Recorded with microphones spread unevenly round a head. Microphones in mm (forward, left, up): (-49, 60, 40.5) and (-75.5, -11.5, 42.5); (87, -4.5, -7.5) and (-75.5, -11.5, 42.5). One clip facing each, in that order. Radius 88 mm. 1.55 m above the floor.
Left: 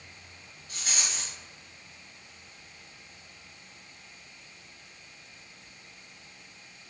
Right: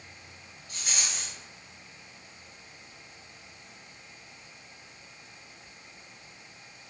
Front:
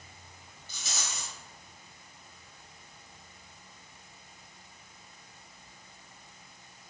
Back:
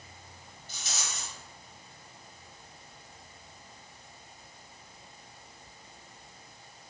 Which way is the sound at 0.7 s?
10° right.